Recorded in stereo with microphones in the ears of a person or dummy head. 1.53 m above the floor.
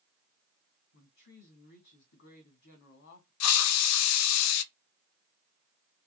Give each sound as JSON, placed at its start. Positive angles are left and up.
{"t": 0.9, "sound": "a woman speaking", "side_deg": 55, "distance_m": 2.5}
{"t": 3.4, "sound": "a hiss", "side_deg": 75, "distance_m": 0.5}